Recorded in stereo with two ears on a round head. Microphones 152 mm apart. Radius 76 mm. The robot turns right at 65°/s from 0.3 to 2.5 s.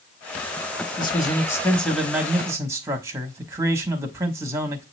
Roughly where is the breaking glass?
No breaking glass in this recording.